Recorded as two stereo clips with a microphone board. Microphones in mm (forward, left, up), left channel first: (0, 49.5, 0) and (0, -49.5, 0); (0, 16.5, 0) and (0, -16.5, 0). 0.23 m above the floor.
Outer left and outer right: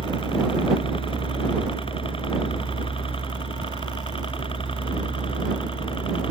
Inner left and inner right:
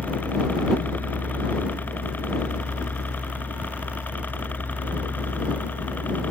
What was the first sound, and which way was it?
A helicopter, 65° left (ahead or behind).